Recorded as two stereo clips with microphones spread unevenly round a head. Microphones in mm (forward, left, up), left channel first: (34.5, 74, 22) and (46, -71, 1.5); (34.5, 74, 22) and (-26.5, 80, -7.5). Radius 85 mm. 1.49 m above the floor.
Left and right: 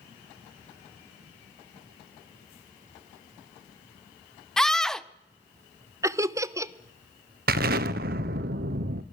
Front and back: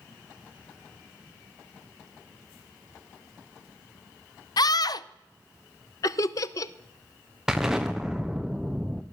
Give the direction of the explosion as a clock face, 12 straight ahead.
4 o'clock.